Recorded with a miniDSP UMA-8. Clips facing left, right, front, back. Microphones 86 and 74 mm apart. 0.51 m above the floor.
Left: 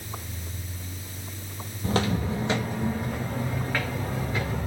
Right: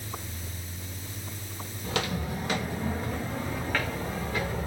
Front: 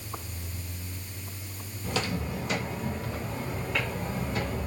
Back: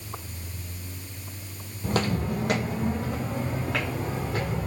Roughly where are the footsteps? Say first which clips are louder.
Left 5 dB, back 5 dB; behind left.